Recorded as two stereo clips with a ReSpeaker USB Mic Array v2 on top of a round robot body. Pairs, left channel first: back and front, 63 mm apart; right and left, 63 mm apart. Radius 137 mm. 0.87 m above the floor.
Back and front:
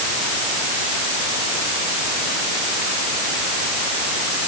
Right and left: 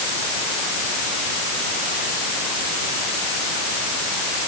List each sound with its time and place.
Only background noise.